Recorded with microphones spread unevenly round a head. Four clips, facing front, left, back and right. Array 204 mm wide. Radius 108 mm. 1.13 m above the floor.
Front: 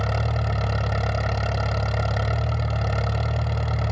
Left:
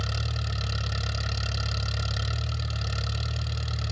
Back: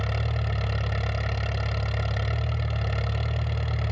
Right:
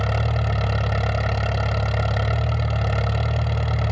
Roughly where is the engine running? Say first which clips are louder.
Right 10 dB, front 5 dB; ahead right.